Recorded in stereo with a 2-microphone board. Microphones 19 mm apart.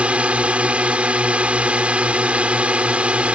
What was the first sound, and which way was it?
A drone, 65° right (ahead or behind).